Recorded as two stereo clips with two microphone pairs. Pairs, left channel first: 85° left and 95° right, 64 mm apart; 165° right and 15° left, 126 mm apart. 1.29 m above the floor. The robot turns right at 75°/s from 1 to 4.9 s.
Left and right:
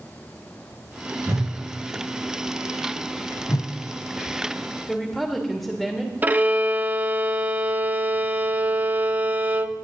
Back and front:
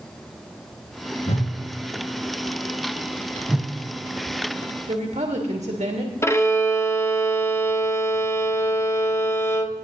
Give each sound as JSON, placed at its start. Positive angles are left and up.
{"t": 1.3, "sound": "a whoosh", "azimuth_deg": -135, "distance_m": 1.4}
{"t": 3.5, "sound": "a whoosh", "azimuth_deg": 95, "distance_m": 0.6}
{"t": 4.9, "sound": "a woman speaking", "azimuth_deg": -5, "distance_m": 1.4}
{"t": 6.2, "sound": "a violin", "azimuth_deg": -120, "distance_m": 0.6}